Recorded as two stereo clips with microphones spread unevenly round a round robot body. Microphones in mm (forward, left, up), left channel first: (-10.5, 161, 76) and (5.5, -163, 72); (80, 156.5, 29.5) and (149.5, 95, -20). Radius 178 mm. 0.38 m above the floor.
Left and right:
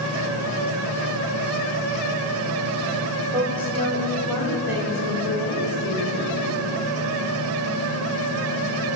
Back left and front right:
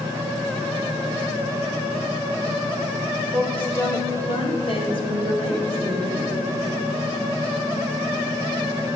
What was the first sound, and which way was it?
A woman speaking, 25° right.